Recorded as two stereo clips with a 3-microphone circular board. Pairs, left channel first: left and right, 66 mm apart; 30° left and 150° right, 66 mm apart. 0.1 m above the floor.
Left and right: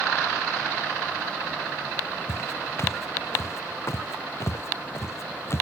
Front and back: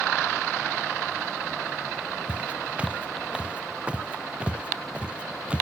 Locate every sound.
2.3 s footsteps: 140° left; by 5.6 s 135° left